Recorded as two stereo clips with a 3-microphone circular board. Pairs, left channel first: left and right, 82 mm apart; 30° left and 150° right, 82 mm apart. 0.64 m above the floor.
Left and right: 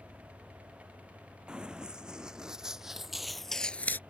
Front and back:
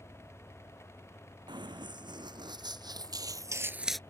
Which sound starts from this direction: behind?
Running footsteps, at 1.5 s.